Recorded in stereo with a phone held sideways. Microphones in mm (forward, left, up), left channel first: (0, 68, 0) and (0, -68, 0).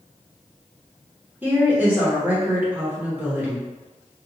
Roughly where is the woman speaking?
Centre.